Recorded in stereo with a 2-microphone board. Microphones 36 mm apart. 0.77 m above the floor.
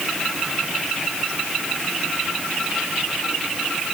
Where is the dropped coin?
No dropped coin in this recording.